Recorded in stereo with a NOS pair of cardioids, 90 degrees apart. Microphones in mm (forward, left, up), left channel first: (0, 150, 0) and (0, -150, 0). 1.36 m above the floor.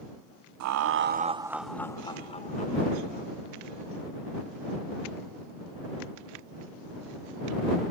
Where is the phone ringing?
I don't hear a phone ringing.